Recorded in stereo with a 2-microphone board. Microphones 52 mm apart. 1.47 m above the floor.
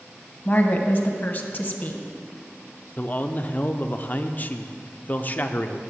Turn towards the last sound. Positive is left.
turn(degrees=35)  # may be behind; listen again after turning